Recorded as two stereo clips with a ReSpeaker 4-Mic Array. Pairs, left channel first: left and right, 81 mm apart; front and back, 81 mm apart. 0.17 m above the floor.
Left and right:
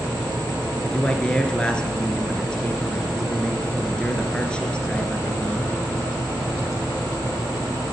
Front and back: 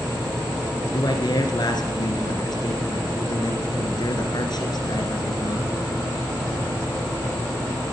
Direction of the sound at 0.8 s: 15° left.